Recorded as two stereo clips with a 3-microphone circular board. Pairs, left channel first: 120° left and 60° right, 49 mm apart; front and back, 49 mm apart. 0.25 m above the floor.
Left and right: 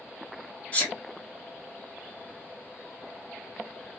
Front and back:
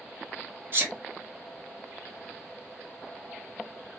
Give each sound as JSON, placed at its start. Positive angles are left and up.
{"t": 0.7, "sound": "a sneeze", "azimuth_deg": 180, "distance_m": 1.8}